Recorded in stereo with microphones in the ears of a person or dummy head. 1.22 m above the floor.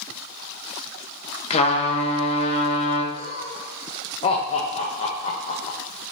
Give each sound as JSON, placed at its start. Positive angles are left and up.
{"t": 1.5, "sound": "a trumpet", "side_deg": 35, "distance_m": 1.3}
{"t": 3.1, "sound": "laughter", "side_deg": 35, "distance_m": 1.0}